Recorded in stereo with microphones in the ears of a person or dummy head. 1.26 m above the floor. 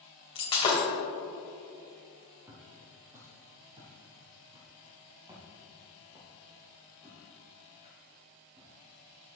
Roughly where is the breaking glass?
Left.